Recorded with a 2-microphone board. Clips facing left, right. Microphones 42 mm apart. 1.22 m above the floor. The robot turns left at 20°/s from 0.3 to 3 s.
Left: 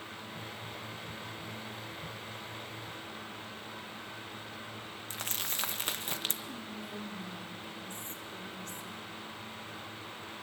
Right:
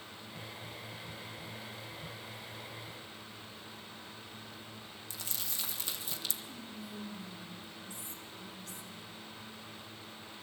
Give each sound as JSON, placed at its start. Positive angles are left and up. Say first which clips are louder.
{"t": 5.1, "sound": "crumpling", "louder": "left 6 dB", "side_deg": 55, "distance_m": 1.4}
{"t": 6.5, "sound": "whispering", "louder": "left 4 dB", "side_deg": 55, "distance_m": 3.5}